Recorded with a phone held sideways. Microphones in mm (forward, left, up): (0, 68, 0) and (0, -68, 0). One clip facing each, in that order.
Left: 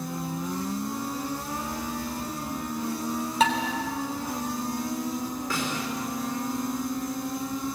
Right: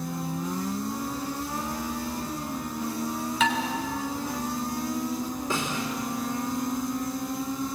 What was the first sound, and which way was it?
Dishes clattering, 40° left (ahead or behind).